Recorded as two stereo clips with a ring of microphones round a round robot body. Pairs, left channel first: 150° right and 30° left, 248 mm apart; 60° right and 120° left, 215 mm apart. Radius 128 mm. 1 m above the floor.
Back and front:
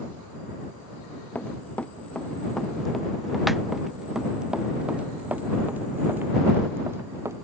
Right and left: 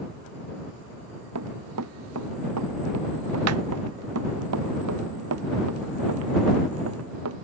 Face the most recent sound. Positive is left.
turn(degrees=110)